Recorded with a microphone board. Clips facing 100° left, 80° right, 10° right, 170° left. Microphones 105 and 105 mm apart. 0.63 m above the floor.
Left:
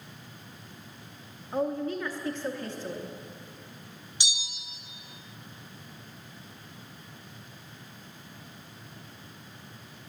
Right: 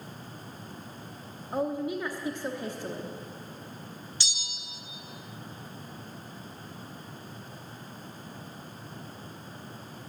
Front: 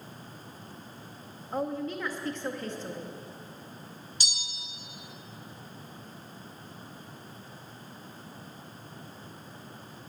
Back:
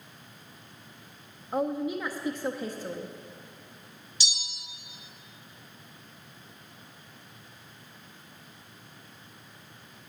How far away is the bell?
About 0.8 m.